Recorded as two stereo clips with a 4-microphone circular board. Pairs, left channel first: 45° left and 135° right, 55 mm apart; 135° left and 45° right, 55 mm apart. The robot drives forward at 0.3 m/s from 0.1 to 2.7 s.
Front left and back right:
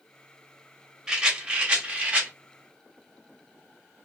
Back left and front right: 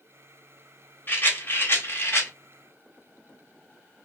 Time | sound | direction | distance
1.1 | a rattle | 155° left | 0.7 m